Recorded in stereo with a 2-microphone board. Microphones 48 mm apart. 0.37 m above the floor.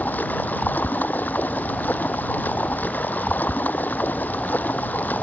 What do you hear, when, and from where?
0.0 s running water: 40° left (ahead or behind)